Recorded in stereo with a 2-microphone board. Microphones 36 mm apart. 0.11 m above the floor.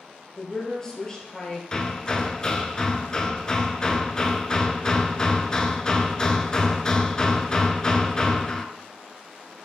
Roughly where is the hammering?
Left.